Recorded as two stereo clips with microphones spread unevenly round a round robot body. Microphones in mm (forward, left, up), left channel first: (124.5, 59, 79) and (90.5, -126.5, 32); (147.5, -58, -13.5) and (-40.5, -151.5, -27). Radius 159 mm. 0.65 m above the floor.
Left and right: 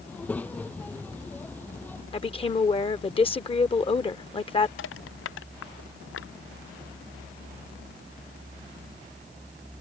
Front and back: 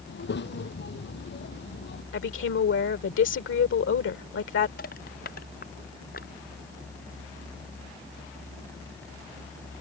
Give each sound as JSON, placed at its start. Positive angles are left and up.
{"t": 0.1, "sound": "a child speaking", "azimuth_deg": 0}
{"t": 2.1, "sound": "a woman speaking", "azimuth_deg": 15}
{"t": 4.8, "sound": "crushing", "azimuth_deg": 90}